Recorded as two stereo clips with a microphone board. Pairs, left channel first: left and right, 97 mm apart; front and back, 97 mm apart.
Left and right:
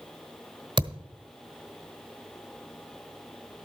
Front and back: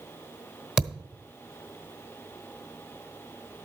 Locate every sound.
0.8 s a thud: 100° right, 1.1 m